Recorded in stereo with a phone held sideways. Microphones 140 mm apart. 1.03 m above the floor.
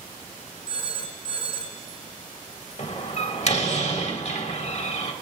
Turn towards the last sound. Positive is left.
turn(degrees=50)  # may be behind; listen again after turning